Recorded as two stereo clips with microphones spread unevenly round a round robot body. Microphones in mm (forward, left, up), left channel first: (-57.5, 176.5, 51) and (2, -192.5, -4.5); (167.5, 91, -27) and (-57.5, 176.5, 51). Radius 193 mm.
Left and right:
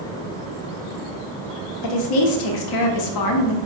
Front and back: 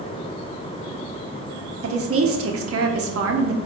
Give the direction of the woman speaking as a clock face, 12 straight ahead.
8 o'clock.